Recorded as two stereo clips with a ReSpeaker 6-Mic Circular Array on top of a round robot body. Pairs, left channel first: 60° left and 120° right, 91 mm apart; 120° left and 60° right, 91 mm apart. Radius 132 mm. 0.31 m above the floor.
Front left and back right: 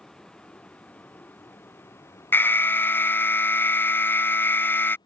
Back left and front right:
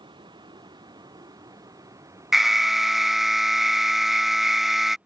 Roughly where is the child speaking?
I don't hear a child speaking.